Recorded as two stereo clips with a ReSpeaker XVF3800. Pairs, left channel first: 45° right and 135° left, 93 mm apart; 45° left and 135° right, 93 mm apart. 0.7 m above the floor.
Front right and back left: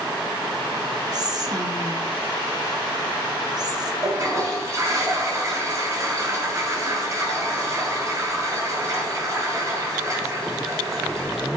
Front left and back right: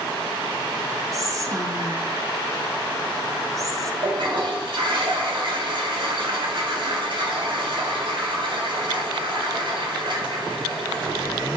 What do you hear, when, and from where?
1.1 s whispering: 175° left, 1.2 m
4.0 s a toilet flushing: 165° right, 2.5 m